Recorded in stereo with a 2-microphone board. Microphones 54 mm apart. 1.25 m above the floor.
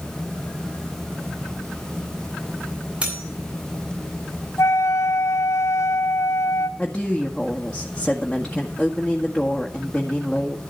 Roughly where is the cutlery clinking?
Right.